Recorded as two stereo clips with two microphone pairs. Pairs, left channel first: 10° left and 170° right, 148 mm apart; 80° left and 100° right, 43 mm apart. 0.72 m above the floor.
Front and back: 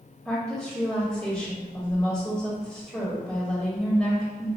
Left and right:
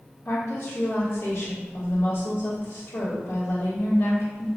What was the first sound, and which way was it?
A woman speaking, 85° left.